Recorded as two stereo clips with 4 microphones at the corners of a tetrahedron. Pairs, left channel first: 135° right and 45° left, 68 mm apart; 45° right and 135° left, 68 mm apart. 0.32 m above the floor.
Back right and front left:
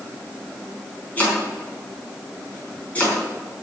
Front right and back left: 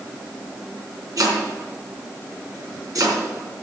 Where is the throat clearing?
No throat clearing in this recording.